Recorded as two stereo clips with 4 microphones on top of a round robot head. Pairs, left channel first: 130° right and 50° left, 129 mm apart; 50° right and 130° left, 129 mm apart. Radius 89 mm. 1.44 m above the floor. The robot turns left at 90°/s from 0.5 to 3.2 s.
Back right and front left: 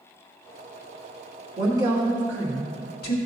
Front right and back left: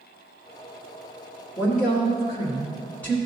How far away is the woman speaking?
About 2 m.